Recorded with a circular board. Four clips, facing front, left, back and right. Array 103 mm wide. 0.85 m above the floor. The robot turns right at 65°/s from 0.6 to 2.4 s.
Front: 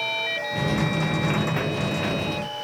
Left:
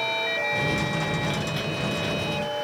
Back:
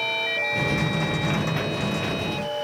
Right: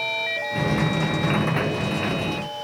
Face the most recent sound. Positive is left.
No sound to turn to.